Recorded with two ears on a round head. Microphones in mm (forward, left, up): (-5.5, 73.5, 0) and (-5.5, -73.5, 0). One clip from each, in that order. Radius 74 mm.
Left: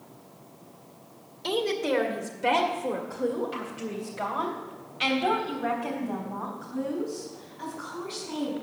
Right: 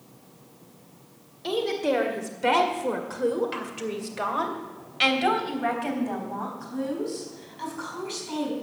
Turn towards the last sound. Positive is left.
turn(degrees=-75)  # may be behind; listen again after turning